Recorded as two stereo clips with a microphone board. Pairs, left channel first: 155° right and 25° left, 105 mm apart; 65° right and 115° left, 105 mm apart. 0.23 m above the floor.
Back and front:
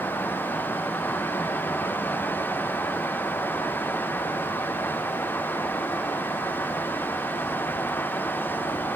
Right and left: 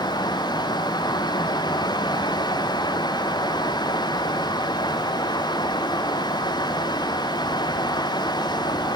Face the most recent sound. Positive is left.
No sound to turn to.